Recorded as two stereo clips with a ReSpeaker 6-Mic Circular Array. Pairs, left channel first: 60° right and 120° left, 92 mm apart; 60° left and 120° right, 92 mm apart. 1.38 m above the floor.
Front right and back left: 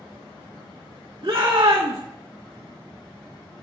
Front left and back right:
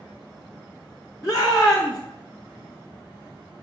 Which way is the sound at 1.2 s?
110° left.